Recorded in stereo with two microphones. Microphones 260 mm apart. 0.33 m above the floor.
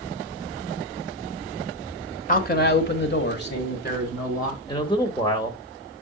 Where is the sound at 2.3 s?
30° left (ahead or behind), 1.1 m; by 4.6 s 35° left (ahead or behind), 2 m.